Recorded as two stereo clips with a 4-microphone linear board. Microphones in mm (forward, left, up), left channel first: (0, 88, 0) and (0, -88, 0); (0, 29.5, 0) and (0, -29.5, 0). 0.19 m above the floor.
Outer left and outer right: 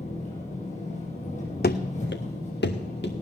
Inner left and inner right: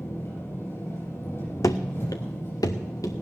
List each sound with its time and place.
0.0 s an engine running: 45° left (ahead or behind), 6.5 m
1.6 s running footsteps: 70° left (ahead or behind), 0.8 m; by 3.1 s 80° left, 1.9 m